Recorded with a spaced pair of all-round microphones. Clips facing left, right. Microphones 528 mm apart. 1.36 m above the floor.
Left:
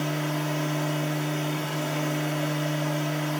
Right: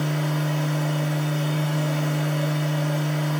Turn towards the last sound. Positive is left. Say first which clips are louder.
# right 2 dB
turn(degrees=-60)  # may be behind; listen again after turning